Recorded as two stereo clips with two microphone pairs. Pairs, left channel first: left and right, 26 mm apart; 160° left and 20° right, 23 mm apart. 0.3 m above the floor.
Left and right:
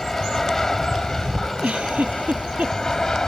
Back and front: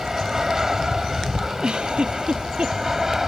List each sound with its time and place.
0.0 s an aircraft: 30° left; by 3.3 s 40° left
1.6 s a giggle: 65° right